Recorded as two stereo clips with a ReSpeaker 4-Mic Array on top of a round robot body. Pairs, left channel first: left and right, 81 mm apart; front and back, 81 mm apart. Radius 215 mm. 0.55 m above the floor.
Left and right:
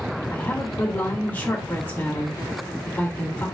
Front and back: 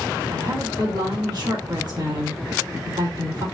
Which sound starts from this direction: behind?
A woman speaking, at 0.3 s.